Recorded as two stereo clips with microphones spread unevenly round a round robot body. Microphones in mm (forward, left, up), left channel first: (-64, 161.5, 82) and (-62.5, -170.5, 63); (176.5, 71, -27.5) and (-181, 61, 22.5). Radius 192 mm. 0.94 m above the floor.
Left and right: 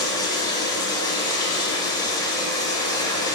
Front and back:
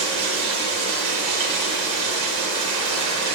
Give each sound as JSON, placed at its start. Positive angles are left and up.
{"t": 0.0, "sound": "running water", "azimuth_deg": 165, "distance_m": 0.9}